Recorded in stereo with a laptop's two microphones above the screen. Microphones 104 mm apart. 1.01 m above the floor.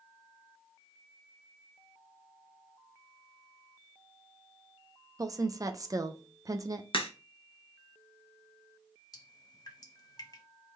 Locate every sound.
5.2 s a woman speaking: 35° right (ahead or behind), 0.5 m
6.9 s a crack: 55° left (ahead or behind), 0.6 m
9.1 s dripping: 40° left (ahead or behind), 0.9 m